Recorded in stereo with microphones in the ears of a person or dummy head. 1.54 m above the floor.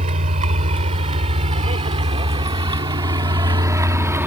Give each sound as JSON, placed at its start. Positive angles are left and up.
{"t": 0.0, "sound": "a vehicle", "side_deg": -35}